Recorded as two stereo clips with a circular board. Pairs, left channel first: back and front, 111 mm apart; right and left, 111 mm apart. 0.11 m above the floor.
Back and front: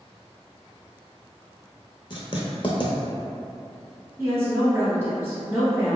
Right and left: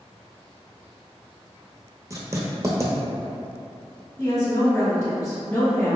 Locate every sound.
2.1 s writing: 145° left, 0.6 m
4.2 s a woman speaking: 50° right, 1.4 m